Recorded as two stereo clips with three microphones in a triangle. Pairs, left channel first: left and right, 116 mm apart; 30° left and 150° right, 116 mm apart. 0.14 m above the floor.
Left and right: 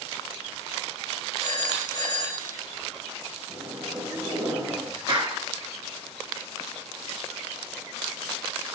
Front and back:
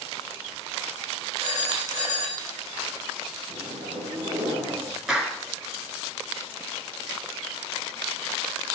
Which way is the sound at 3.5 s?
155° right.